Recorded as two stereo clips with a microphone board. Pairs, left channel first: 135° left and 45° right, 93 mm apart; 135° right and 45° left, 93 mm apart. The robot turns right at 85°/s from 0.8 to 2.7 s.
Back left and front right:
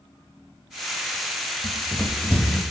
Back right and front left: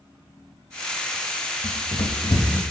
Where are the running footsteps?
165° right, 0.9 m; by 2.6 s 85° right, 0.9 m.